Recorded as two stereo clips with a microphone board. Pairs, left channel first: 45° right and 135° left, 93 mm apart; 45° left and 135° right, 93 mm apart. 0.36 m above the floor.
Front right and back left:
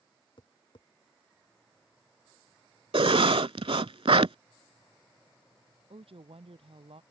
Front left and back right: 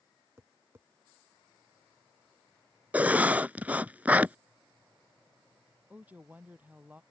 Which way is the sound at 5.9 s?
150° left.